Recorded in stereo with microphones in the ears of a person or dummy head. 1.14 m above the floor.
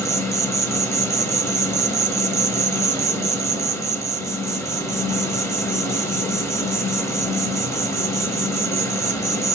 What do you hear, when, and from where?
0.0 s an insect: 20° left (ahead or behind), 0.9 m